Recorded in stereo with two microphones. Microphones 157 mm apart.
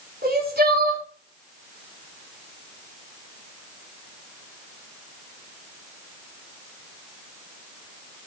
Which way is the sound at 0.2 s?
80° right.